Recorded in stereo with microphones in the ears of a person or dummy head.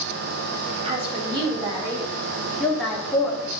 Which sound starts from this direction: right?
A woman speaking, at 0.8 s.